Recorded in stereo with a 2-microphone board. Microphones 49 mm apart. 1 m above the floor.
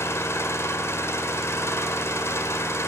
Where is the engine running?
60° left (ahead or behind), 2 m.